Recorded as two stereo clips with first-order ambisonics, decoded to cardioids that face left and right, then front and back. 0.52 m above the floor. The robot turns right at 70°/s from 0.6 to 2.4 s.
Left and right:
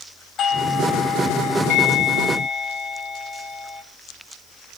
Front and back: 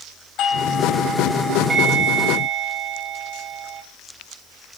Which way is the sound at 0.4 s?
40° left.